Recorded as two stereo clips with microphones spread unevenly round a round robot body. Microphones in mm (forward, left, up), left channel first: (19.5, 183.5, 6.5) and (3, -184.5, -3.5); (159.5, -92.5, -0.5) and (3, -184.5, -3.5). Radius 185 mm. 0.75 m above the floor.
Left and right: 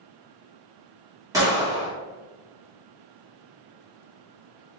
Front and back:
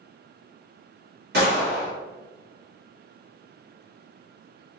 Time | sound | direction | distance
1.3 | a gunshot | 170° right | 1.7 m